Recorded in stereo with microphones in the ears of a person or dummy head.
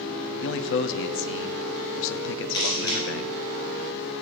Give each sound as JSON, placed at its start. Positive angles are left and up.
{"t": 0.4, "sound": "a man speaking", "side_deg": 65, "distance_m": 0.6}
{"t": 2.5, "sound": "a camera shutter", "side_deg": 20, "distance_m": 2.0}